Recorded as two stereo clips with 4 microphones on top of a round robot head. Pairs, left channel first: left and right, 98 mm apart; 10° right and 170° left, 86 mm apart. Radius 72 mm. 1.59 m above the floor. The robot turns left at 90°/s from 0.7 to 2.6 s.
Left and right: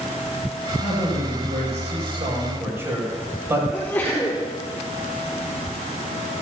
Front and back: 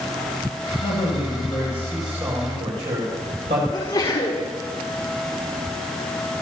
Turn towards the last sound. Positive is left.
turn(degrees=15)